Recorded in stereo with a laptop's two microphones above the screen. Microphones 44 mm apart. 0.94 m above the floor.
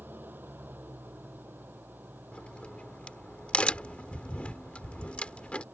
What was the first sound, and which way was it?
An engine running, 45° right (ahead or behind).